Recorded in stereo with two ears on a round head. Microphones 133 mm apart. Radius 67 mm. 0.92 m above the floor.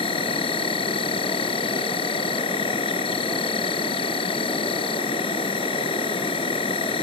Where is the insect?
35° left (ahead or behind).